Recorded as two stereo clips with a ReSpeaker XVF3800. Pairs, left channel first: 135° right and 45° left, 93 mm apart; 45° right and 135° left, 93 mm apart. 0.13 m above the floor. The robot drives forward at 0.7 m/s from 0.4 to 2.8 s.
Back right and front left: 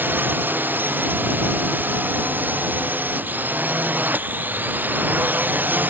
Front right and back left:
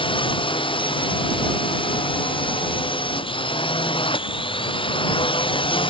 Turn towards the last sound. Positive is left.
turn(degrees=-25)